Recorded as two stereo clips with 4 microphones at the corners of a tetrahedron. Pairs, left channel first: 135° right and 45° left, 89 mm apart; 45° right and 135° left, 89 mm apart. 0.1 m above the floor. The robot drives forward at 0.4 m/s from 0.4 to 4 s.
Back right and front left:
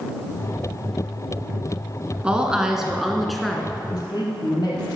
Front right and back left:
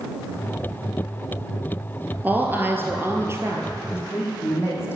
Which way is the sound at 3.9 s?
105° right.